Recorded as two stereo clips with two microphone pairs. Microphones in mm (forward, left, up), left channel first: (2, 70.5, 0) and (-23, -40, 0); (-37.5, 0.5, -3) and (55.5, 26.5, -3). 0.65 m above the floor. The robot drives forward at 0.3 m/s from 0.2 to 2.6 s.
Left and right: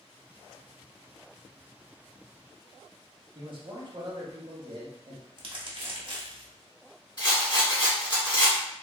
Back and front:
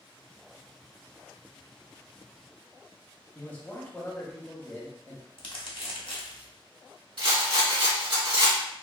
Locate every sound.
3.4 s a man speaking: 105° right, 0.9 m
5.4 s crumpling: 145° right, 0.8 m
7.2 s a rattle: 35° left, 1.7 m